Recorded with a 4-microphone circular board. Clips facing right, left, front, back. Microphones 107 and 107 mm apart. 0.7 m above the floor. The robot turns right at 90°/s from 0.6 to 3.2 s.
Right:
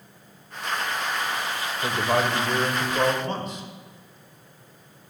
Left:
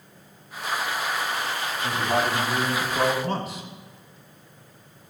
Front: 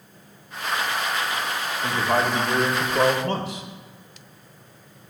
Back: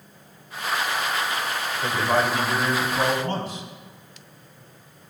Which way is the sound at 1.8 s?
120° right.